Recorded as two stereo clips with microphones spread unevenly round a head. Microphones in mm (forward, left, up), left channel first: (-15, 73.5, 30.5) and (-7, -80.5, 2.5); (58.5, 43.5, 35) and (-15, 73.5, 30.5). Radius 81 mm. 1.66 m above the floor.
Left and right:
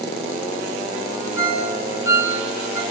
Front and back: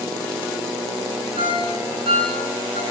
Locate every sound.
1.4 s a ringtone: 165° right, 7 m